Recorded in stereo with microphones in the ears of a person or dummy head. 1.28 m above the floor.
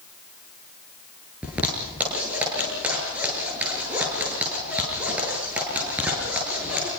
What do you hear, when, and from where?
1.4 s a zipper: 10° right (ahead or behind), 7.5 m